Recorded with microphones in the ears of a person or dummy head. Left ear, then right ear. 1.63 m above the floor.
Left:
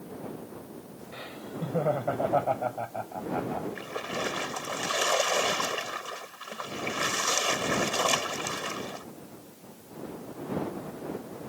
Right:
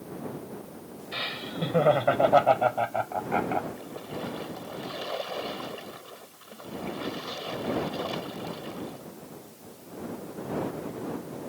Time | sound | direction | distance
1.1 | laughter | 80° right | ?
3.8 | a splash | 65° left (ahead or behind) | ?